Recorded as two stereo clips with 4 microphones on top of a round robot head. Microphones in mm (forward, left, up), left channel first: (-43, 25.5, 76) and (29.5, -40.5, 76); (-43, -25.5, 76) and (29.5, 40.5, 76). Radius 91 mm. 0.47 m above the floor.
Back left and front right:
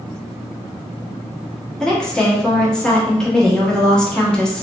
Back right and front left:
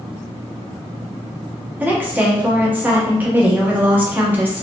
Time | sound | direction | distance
1.8 | a woman speaking | 65° left | 1.1 m